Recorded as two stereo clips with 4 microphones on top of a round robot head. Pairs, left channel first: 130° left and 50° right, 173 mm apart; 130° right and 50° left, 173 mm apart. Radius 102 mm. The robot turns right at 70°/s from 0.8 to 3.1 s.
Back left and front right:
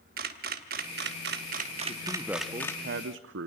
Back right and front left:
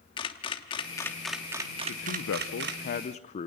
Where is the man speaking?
160° right, 0.6 m; by 3.5 s 75° right, 0.6 m.